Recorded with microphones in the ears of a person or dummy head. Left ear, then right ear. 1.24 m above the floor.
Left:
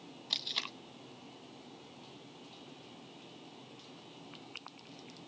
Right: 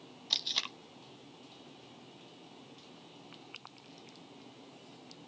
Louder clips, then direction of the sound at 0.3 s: Right 3 dB; 10° right (ahead or behind).